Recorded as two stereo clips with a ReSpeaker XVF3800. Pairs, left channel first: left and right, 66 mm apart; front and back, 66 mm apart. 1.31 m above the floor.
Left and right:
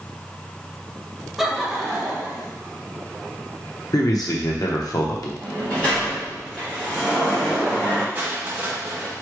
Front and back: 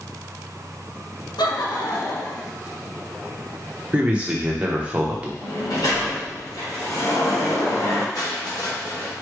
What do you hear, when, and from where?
1.4 s laughter: straight ahead, 0.9 m; by 2.5 s 10° left, 2 m
3.9 s a man speaking: 110° left, 1.0 m
5.4 s a sliding door: 15° left, 2.5 m
8.2 s crushing: 25° right, 1.2 m